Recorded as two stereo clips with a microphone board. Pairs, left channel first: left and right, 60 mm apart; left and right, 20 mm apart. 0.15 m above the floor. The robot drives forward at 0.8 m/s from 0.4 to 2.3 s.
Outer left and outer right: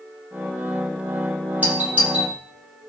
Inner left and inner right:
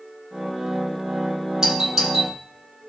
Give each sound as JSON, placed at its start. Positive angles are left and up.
{"t": 1.6, "sound": "a doorbell", "side_deg": -25, "distance_m": 5.0}